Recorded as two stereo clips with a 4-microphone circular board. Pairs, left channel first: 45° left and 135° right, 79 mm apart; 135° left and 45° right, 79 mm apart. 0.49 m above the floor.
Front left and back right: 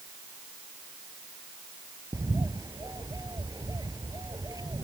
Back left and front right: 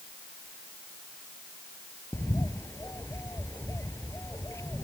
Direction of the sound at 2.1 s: 170° right.